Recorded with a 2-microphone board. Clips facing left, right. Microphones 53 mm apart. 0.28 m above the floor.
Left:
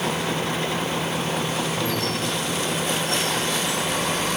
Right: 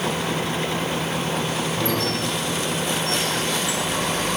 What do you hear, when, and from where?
1.8 s a squeak: 90° right, 6 m